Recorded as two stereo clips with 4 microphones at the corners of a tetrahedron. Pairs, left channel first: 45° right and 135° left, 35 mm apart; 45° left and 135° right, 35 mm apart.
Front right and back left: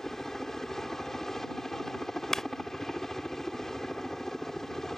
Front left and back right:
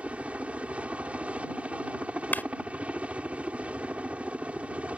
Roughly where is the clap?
Ahead left.